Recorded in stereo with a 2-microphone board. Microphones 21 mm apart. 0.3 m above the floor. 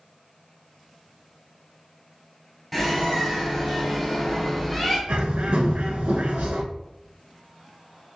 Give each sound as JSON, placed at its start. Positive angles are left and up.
{"t": 2.7, "sound": "a bird", "side_deg": -5, "distance_m": 1.9}
{"t": 5.1, "sound": "a bird", "side_deg": -85, "distance_m": 0.6}